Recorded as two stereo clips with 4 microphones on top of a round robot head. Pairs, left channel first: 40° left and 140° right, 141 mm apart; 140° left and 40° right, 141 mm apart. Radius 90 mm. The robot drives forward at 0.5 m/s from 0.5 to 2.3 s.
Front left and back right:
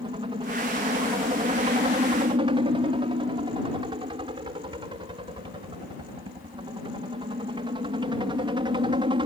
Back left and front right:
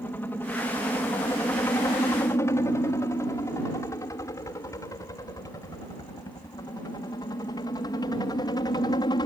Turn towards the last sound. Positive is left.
turn(degrees=-175)